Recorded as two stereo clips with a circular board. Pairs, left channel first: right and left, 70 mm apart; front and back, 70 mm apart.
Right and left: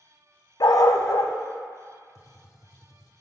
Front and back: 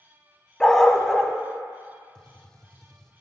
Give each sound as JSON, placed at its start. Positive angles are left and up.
{"t": 0.6, "sound": "a dog barking", "azimuth_deg": -85, "distance_m": 0.6}
{"t": 2.1, "sound": "a gunshot", "azimuth_deg": -80, "distance_m": 0.7}